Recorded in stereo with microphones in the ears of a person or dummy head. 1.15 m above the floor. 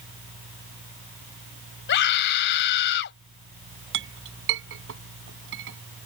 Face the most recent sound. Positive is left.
turn(degrees=-65)  # may be behind; listen again after turning